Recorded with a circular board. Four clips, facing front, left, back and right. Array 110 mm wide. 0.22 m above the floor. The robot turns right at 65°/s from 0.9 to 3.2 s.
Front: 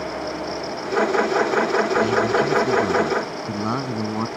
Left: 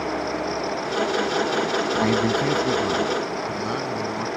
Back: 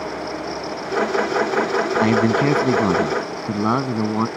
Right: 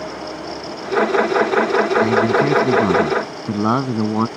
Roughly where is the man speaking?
Behind.